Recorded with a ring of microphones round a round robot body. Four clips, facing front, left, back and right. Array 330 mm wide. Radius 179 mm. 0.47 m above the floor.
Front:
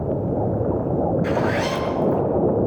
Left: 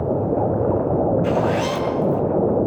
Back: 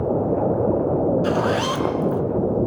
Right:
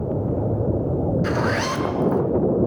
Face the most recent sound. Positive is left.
turn(degrees=-145)